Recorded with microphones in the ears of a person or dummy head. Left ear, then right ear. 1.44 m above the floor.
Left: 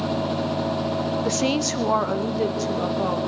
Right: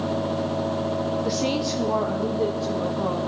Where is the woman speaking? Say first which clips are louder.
Left 1 dB; 25° left (ahead or behind), 0.6 m; by 3.2 s 80° left, 2.5 m.